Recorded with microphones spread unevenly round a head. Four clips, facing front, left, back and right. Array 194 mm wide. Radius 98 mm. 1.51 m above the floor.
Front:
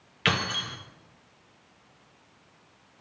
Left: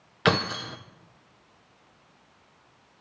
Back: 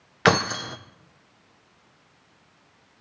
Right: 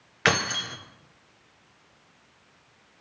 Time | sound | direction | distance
0.2 | keys jangling | 165° left | 0.6 m